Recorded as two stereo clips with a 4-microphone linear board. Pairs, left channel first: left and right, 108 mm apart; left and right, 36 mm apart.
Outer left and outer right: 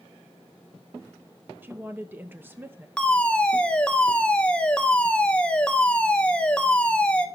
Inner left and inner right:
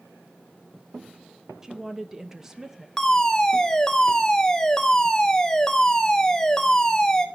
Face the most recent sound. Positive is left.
turn(degrees=10)  # may be behind; listen again after turning